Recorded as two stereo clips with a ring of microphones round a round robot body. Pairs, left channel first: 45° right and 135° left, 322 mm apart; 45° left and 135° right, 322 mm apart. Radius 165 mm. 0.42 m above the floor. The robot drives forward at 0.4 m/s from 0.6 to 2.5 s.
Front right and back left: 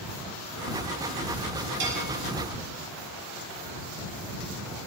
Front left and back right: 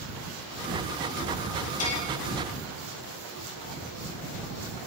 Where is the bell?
90° left, 4.5 m.